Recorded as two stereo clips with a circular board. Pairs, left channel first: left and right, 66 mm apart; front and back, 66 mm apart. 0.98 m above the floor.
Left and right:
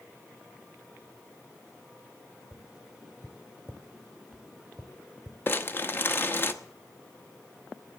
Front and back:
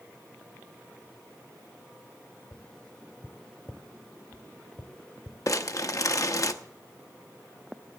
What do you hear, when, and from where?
2.5 s tapping: 35° right, 0.7 m
5.5 s crumpling: 35° left, 0.9 m